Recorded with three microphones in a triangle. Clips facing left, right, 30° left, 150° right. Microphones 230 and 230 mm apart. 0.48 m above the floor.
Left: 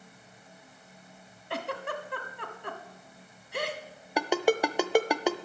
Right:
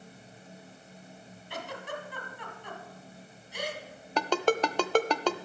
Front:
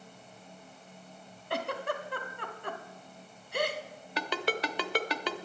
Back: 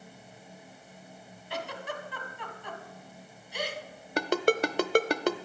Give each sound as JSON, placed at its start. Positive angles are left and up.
{"t": 1.5, "sound": "a giggle", "azimuth_deg": 65, "distance_m": 1.1}
{"t": 4.2, "sound": "a ringtone", "azimuth_deg": 170, "distance_m": 0.6}